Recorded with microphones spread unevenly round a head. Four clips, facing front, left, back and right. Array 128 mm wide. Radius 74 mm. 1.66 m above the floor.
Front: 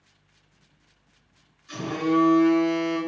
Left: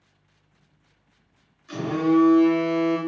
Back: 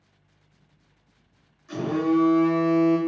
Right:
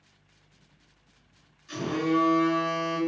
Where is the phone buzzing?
145° left, 0.9 m.